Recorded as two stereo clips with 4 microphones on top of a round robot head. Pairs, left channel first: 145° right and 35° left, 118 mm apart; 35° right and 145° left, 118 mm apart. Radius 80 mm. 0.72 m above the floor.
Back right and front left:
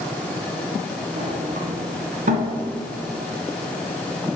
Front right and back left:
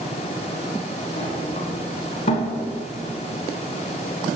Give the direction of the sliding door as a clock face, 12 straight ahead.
12 o'clock.